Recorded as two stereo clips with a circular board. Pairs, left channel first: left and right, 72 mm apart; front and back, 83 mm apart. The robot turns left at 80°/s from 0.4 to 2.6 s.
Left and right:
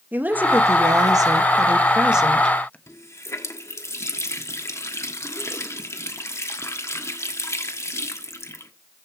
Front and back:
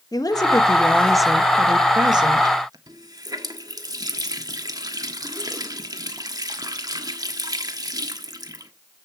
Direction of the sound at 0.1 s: 30° right.